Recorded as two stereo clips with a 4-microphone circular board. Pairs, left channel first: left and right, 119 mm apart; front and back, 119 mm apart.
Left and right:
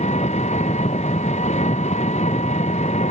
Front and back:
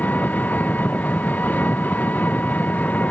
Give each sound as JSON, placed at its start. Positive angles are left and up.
{"t": 0.0, "sound": "an engine running", "azimuth_deg": 75}